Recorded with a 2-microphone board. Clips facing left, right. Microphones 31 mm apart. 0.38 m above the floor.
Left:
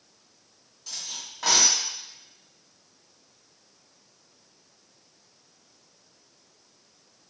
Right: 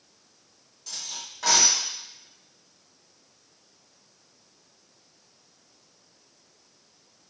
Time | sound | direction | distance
0.9 | cutlery clinking | 5° left (ahead or behind) | 1.1 m